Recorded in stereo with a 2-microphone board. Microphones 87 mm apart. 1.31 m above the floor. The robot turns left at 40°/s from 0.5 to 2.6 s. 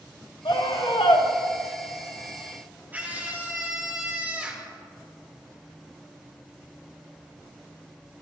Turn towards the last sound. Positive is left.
turn(degrees=-20)  # may be behind; listen again after turning